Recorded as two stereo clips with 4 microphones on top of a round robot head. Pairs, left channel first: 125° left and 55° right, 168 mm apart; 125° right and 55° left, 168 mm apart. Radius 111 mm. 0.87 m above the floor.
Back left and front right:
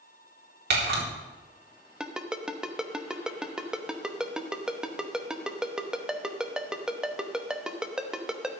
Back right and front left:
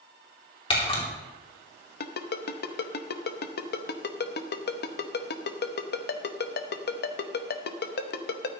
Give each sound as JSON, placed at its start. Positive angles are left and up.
{"t": 0.7, "sound": "a camera shutter", "azimuth_deg": -65, "distance_m": 3.0}
{"t": 2.0, "sound": "a ringtone", "azimuth_deg": -145, "distance_m": 0.9}